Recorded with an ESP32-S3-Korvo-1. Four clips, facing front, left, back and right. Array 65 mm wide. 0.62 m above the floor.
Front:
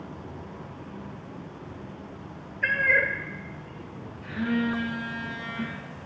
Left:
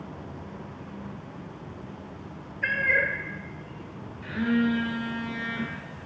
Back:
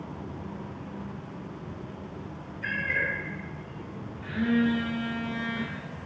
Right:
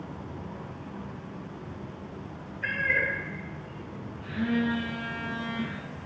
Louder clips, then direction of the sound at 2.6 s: Left 3 dB, front 6 dB; 25° left.